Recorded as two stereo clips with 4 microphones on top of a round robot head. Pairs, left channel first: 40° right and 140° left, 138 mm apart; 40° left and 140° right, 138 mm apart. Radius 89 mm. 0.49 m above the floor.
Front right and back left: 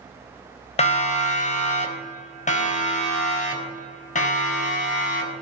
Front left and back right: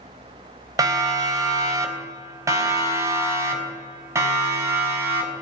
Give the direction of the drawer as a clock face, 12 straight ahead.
No drawer in this recording.